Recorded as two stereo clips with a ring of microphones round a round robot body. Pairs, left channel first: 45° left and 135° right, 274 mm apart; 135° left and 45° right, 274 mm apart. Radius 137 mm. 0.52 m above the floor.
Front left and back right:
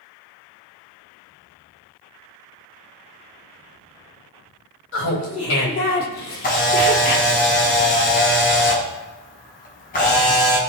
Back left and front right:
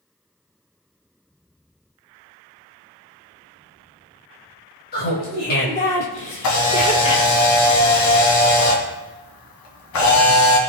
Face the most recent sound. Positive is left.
turn(degrees=105)